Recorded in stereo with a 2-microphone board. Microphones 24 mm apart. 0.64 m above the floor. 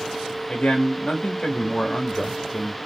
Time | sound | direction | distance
0.5 | a man speaking | 45° left (ahead or behind) | 1.0 m